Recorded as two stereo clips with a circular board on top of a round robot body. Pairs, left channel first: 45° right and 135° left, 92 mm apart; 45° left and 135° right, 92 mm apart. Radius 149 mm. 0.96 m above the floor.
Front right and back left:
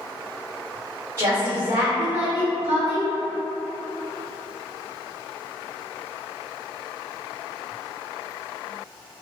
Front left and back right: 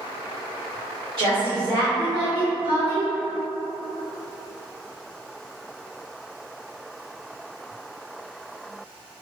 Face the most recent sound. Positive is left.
turn(degrees=175)